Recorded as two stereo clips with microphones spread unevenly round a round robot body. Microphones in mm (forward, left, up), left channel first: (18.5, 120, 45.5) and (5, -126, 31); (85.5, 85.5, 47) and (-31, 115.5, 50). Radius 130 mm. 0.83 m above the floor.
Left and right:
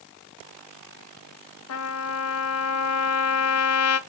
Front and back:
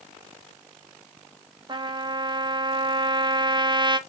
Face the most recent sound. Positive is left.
turn(degrees=110)